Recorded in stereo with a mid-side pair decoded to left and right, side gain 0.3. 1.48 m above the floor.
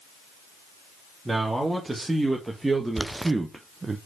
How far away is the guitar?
I don't hear a guitar.